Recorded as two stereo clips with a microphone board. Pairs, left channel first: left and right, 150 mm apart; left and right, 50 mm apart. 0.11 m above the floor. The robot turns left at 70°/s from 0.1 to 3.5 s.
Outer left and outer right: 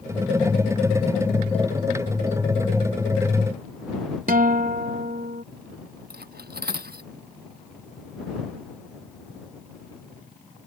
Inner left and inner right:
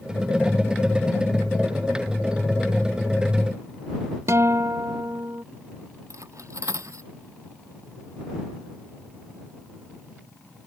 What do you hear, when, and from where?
4.3 s a guitar: 65° right (ahead or behind)
6.1 s cutlery clinking: 85° right